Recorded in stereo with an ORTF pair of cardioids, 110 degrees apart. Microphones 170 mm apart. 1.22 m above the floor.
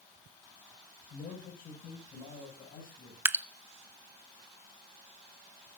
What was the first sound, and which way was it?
A man speaking, 55° left.